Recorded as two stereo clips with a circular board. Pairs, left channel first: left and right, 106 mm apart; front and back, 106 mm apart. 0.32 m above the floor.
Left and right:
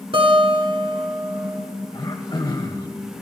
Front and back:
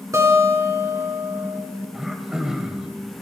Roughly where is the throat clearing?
Left.